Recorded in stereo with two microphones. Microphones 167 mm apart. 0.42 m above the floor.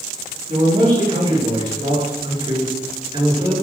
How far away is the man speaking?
About 6.5 m.